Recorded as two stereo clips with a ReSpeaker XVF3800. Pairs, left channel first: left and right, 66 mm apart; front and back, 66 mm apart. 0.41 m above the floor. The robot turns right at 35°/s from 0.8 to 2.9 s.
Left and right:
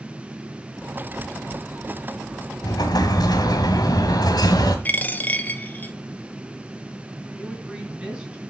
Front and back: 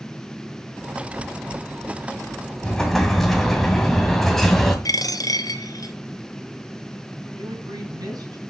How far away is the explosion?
About 1.9 m.